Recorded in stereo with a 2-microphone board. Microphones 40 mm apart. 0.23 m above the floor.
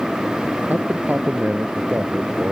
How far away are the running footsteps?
I don't hear running footsteps.